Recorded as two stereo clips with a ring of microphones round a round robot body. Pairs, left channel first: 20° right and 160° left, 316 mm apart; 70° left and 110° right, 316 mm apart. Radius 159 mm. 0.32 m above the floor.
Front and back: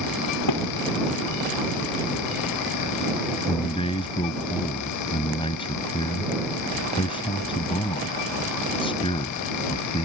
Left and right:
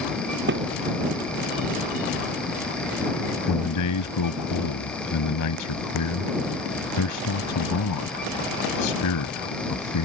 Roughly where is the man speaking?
Ahead left.